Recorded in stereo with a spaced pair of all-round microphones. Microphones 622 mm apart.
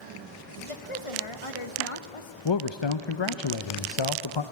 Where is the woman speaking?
50° left (ahead or behind), 1.4 m.